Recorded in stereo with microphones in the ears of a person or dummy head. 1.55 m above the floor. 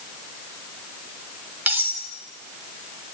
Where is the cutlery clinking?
10° right (ahead or behind), 3.5 m.